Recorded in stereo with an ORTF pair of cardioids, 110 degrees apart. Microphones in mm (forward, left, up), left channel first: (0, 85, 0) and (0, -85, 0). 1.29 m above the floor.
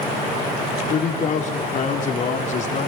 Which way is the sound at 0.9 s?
45° left.